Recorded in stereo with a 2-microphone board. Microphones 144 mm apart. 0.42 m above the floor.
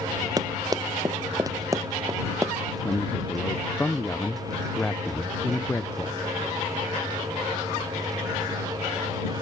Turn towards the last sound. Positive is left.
turn(degrees=10)  # may be behind; listen again after turning